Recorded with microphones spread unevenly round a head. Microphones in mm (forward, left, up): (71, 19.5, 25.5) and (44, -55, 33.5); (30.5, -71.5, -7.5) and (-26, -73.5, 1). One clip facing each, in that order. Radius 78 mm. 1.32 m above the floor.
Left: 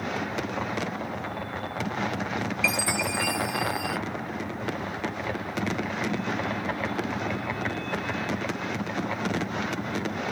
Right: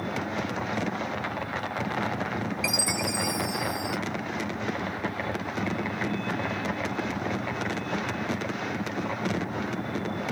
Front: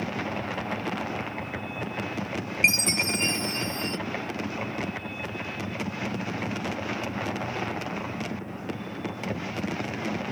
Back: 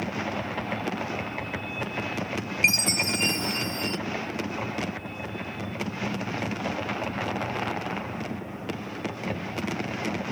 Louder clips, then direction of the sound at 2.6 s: Left 2 dB, front 1 dB; 55° right.